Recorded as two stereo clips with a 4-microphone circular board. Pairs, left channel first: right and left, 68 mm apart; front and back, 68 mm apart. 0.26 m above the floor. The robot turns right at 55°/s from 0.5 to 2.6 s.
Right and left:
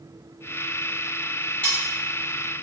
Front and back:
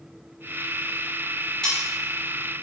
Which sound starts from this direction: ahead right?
Cutlery clinking, at 1.6 s.